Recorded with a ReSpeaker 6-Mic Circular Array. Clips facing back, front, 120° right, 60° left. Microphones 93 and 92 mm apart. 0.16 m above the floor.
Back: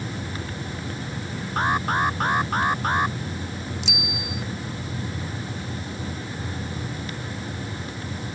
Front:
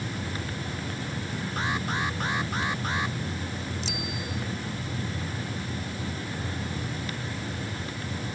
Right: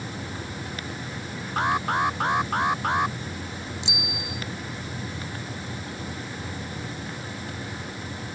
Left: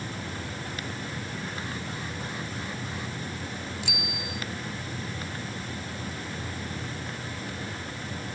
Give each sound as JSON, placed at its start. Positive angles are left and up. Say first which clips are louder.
{"t": 1.6, "sound": "an alarm", "louder": "back 8 dB, right 12 dB", "azimuth_deg": -140}
{"t": 3.8, "sound": "a bicycle bell", "louder": "back 2 dB, right 1 dB", "azimuth_deg": -50}